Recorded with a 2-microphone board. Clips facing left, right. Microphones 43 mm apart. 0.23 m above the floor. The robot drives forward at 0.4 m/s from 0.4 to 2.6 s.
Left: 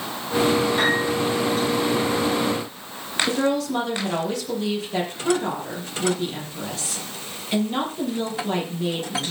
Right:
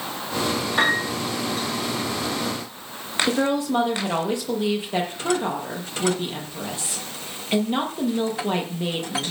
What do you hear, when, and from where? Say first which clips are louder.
0.8 s a piano: even; 30° right (ahead or behind), 9.5 m
3.3 s a woman speaking: right 1 dB; 25° right (ahead or behind), 7 m